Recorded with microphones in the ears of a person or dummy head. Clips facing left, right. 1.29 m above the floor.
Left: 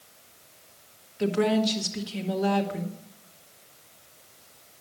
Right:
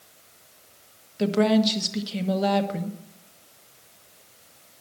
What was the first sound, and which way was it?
A woman speaking, 55° right (ahead or behind).